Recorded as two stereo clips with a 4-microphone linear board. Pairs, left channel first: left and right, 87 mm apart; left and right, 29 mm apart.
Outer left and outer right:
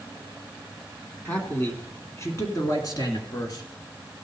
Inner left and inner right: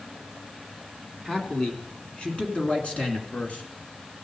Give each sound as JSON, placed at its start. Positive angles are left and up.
{"t": 1.2, "sound": "a man speaking", "side_deg": 20, "distance_m": 1.7}